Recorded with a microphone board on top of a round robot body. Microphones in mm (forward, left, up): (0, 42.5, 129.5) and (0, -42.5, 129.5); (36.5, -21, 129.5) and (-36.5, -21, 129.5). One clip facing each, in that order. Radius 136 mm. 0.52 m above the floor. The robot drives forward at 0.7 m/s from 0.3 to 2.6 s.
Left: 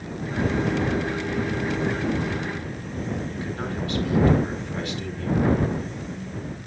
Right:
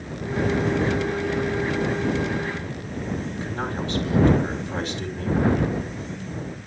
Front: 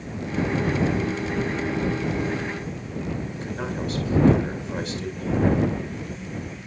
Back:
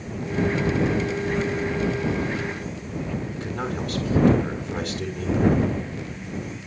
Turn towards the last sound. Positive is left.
turn(degrees=-155)